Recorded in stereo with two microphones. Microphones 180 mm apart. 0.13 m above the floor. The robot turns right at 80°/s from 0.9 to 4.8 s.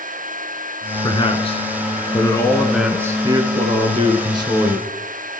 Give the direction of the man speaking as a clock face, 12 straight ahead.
10 o'clock.